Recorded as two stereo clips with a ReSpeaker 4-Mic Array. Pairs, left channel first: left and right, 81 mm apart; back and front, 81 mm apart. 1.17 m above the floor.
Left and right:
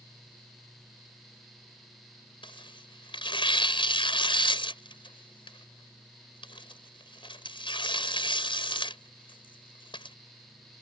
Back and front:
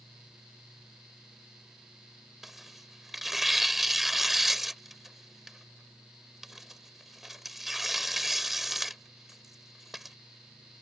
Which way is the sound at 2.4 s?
90° left.